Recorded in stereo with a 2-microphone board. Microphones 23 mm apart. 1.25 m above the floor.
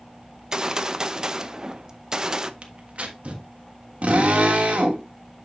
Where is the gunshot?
25° right (ahead or behind), 0.5 m.